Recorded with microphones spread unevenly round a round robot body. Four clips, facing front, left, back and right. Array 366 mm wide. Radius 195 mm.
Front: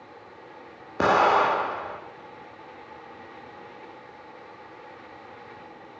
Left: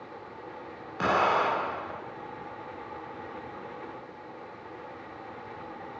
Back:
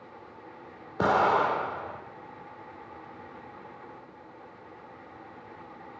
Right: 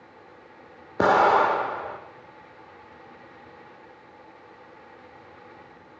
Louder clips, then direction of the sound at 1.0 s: Right 7 dB, front 4 dB; 75° right.